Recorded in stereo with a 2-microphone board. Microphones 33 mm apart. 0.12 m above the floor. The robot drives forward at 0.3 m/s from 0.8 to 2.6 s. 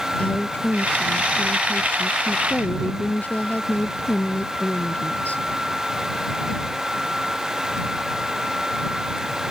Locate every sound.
0.2 s a woman speaking: 55° left (ahead or behind)